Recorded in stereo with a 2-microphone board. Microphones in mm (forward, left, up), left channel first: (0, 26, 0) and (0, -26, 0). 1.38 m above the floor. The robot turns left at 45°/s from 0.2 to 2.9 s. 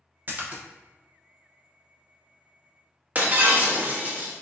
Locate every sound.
0.3 s a splash: 40° right (ahead or behind), 0.8 m; by 0.6 s 25° right (ahead or behind), 0.8 m
3.1 s breaking glass: 30° right (ahead or behind), 0.8 m